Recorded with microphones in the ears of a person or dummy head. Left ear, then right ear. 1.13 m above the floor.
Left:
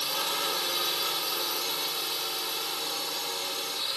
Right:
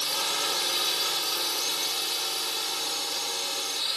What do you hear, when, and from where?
0.0 s a drone: 20° right (ahead or behind)